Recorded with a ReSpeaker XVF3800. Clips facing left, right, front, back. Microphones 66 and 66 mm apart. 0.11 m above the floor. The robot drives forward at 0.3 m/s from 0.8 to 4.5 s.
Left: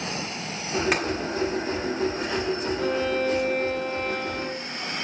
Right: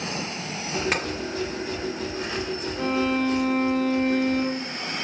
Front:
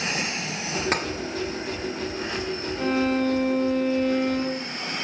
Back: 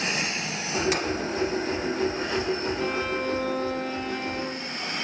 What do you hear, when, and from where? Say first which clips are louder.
0.9 s tapping: left 2 dB, front 2 dB; 5° left, 1.2 m
2.8 s a violin: right 4 dB, front 4 dB; 95° right, 2.5 m; by 4.6 s 110° right, 2.5 m